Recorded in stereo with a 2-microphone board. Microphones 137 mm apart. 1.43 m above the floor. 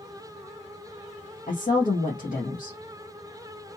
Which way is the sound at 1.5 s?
80° left.